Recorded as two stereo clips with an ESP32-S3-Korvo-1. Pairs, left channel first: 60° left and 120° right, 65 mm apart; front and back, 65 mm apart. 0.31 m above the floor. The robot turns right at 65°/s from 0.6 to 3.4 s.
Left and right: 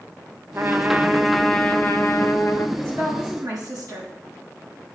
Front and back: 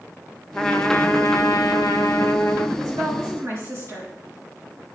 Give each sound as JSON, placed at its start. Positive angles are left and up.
{"t": 0.5, "sound": "a trumpet", "azimuth_deg": -70, "distance_m": 0.9}
{"t": 2.8, "sound": "a woman speaking", "azimuth_deg": -175, "distance_m": 5.0}